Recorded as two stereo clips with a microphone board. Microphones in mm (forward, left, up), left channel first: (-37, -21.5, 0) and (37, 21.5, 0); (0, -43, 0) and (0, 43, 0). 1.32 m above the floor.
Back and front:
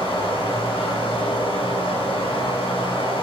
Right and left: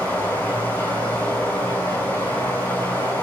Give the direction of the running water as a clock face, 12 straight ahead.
5 o'clock.